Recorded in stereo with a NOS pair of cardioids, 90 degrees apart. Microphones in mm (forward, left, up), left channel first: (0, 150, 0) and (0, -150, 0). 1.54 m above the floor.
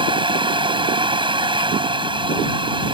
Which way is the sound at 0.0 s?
15° right.